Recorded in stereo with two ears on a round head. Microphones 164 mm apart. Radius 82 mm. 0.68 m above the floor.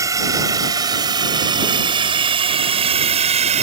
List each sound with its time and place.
0.0 s a drone: 20° right (ahead or behind); by 3.6 s 40° right (ahead or behind)